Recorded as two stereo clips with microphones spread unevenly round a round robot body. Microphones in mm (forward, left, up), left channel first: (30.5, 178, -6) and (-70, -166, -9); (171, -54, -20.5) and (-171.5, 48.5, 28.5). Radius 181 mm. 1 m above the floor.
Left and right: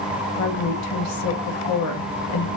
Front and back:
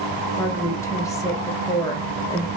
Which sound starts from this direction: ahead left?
A woman speaking, at 0.4 s.